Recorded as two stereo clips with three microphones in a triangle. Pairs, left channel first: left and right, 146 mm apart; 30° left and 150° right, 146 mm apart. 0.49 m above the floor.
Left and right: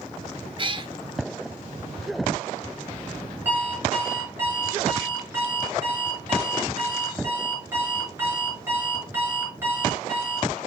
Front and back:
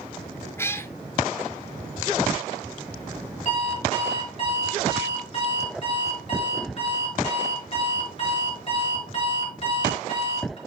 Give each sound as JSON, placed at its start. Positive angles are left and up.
{"t": 0.6, "sound": "a cat meowing", "azimuth_deg": -40, "distance_m": 0.8}
{"t": 3.5, "sound": "an alarm clock", "azimuth_deg": -15, "distance_m": 5.5}